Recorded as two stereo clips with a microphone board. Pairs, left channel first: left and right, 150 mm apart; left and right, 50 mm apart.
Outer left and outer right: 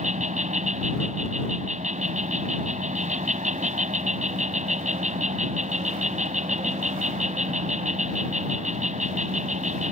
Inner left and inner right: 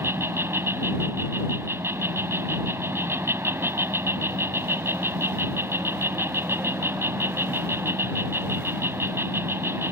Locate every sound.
0.0 s an insect: 50° right (ahead or behind)